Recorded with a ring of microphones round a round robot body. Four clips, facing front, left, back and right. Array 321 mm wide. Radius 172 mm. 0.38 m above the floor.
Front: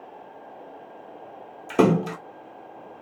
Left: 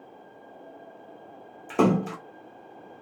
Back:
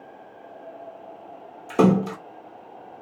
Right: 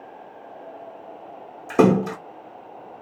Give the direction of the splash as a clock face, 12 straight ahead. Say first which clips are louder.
Right 6 dB, back 1 dB; 2 o'clock.